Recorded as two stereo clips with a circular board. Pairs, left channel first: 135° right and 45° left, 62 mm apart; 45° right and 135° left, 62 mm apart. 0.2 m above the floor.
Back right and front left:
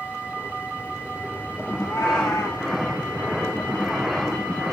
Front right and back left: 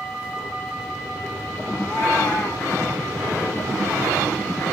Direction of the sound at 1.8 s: 85° right.